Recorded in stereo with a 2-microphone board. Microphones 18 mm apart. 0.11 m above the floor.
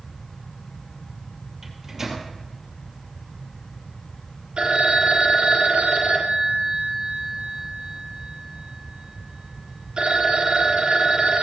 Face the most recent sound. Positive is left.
turn(degrees=-60)  # may be behind; listen again after turning